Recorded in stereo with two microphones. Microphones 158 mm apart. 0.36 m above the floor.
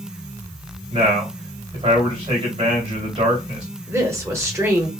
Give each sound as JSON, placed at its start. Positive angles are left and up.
{"t": 0.9, "sound": "a man speaking", "side_deg": -45, "distance_m": 2.0}
{"t": 3.9, "sound": "a woman speaking", "side_deg": -20, "distance_m": 1.0}